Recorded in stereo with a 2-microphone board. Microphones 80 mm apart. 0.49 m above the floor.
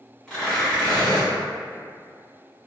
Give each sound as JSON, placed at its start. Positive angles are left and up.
{"t": 0.3, "sound": "tearing paper", "side_deg": 10, "distance_m": 1.9}